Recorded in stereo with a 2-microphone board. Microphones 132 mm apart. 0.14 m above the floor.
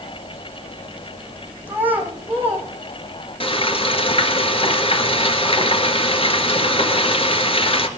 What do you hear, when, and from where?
1.7 s a child speaking: 10° right (ahead or behind), 5 m
3.4 s frying: 45° left (ahead or behind), 1.7 m